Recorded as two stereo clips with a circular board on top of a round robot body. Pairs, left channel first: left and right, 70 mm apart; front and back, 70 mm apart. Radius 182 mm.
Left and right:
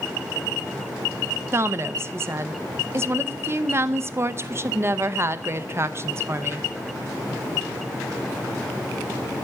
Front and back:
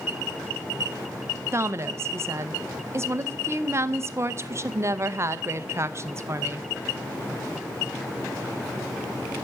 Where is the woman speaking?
135° right, 0.7 m.